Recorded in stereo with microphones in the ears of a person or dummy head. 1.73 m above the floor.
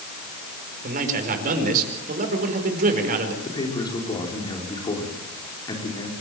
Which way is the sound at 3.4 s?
25° left (ahead or behind).